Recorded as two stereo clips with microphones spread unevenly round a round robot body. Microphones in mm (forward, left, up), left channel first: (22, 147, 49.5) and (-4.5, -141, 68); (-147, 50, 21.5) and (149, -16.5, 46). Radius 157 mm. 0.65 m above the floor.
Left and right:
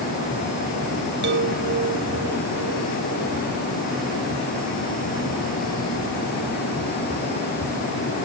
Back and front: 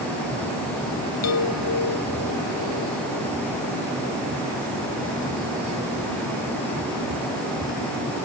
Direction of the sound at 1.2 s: 150° right.